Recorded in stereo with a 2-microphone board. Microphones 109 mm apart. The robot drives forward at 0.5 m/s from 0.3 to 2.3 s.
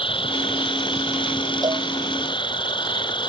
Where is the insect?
50° left (ahead or behind).